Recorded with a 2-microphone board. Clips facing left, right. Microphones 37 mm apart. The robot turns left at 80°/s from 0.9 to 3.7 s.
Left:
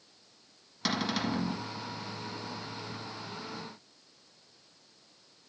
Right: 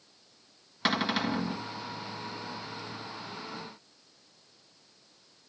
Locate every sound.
0.8 s a cupboard door: 125° right, 1.3 m; by 1.6 s 175° left, 1.3 m